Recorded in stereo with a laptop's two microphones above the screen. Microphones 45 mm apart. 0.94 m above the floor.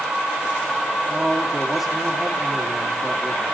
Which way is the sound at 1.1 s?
Centre (ahead or behind).